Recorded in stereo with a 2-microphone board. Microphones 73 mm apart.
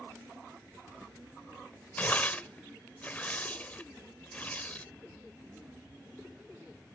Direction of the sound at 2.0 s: 20° left (ahead or behind).